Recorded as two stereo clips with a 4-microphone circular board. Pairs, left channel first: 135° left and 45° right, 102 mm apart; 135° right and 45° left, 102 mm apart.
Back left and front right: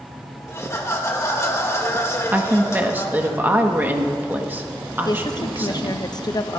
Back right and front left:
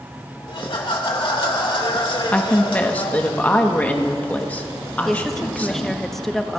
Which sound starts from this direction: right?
A woman speaking, at 2.3 s.